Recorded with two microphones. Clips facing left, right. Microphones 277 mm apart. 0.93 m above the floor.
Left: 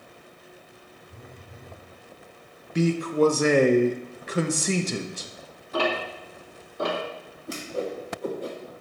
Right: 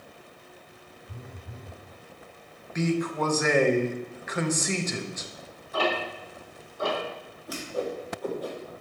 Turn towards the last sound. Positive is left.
turn(degrees=25)  # may be behind; listen again after turning